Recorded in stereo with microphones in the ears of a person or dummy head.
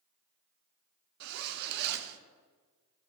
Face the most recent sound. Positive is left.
turn(degrees=-55)  # may be behind; listen again after turning